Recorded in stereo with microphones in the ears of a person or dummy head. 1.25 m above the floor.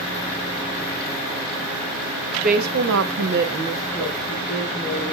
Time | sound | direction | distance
2.3 | a woman speaking | 45° right (ahead or behind) | 1.2 m